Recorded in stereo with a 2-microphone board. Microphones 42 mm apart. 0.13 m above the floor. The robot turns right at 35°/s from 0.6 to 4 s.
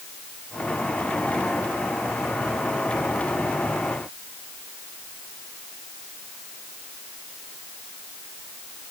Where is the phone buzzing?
No phone buzzing in this recording.